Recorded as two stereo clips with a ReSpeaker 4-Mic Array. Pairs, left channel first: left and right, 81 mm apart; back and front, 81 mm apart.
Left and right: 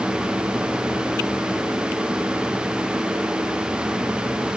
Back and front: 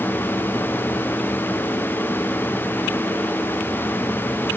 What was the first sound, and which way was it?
Only background noise.